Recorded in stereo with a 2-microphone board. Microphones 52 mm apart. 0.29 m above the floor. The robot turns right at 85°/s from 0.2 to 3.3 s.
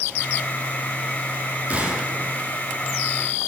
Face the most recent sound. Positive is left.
turn(degrees=110)